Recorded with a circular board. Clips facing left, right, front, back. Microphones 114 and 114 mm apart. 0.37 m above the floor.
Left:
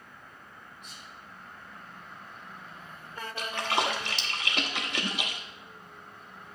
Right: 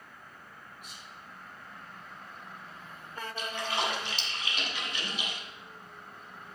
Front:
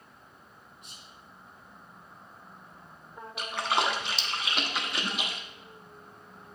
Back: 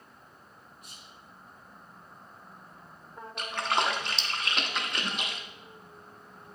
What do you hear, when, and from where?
0.8 s whispering: 20° right, 0.9 m
3.4 s a splash: 85° left, 0.7 m